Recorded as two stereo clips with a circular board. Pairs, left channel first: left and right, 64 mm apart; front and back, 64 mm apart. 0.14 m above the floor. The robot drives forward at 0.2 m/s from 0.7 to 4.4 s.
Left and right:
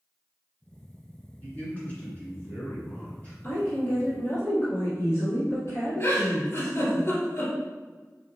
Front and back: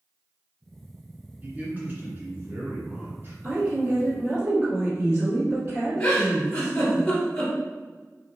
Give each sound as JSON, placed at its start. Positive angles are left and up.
{"t": 1.4, "sound": "a man speaking", "azimuth_deg": 135, "distance_m": 1.9}
{"t": 3.4, "sound": "a woman speaking", "azimuth_deg": 110, "distance_m": 1.9}
{"t": 6.0, "sound": "a giggle", "azimuth_deg": 65, "distance_m": 1.9}